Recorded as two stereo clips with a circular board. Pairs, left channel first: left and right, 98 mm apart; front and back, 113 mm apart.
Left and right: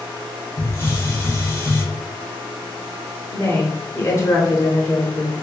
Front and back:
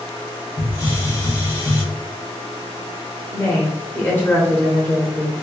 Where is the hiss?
45° left, 1.3 m.